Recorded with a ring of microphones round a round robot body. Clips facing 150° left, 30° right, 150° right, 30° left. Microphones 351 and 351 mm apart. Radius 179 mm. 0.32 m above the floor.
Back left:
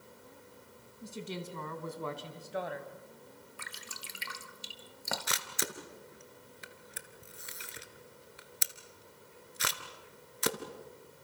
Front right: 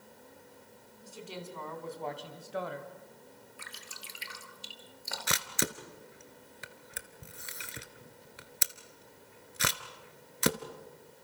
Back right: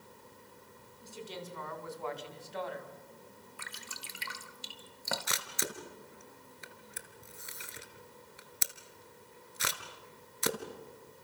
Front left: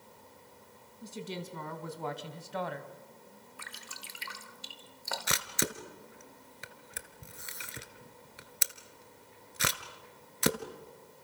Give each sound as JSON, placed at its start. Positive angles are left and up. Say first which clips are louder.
{"t": 1.0, "sound": "a woman speaking", "louder": "back left 3 dB, front left 4 dB", "azimuth_deg": 90, "distance_m": 3.0}
{"t": 3.6, "sound": "dripping", "louder": "back left 1 dB, back right 1 dB", "azimuth_deg": -170, "distance_m": 1.5}
{"t": 5.3, "sound": "a camera shutter", "louder": "front right 5 dB, front left 5 dB", "azimuth_deg": -5, "distance_m": 1.3}